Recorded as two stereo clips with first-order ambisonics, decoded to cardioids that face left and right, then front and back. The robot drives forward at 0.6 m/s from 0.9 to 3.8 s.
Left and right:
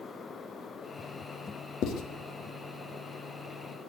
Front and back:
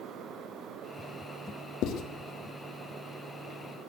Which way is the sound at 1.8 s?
40° left.